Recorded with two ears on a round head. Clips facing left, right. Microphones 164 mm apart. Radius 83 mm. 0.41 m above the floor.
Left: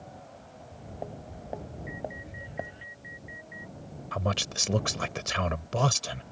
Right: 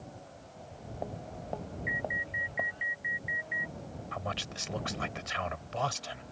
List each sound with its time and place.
0.6 s footsteps: centre (ahead or behind); by 2.9 s 20° left (ahead or behind)
1.9 s an alarm: 75° right (ahead or behind)
4.1 s a man speaking: 55° left (ahead or behind)